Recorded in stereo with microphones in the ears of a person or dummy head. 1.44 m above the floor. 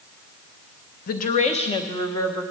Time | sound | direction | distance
1.1 | a woman speaking | 50° left (ahead or behind) | 0.9 m